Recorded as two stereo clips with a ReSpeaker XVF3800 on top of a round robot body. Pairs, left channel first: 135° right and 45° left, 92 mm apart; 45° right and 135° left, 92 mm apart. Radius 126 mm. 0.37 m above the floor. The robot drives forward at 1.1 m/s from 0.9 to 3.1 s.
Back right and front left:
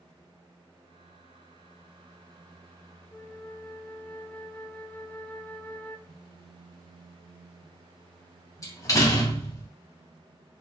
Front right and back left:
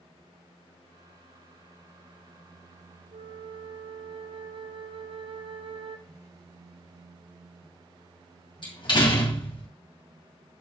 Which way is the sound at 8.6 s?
80° right.